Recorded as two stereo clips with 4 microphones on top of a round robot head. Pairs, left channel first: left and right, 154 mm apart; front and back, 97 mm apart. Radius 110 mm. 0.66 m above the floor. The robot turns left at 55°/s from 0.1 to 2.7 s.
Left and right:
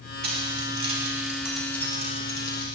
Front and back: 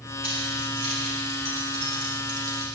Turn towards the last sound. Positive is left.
turn(degrees=120)